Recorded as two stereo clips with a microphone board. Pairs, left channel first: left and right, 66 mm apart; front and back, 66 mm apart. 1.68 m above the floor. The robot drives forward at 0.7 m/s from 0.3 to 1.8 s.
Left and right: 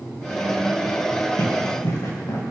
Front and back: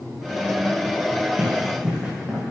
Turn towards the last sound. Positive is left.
turn(degrees=100)